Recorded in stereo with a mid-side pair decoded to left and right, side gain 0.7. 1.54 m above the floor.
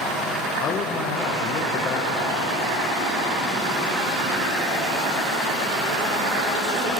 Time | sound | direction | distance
0.6 | a man speaking | 50° left | 0.7 m